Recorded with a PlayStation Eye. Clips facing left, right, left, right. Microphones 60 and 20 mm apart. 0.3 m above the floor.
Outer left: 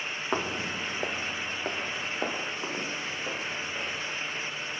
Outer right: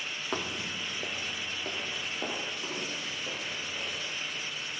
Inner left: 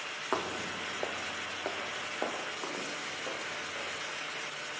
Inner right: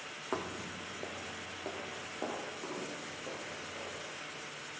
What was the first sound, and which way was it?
Footsteps, 20° left (ahead or behind).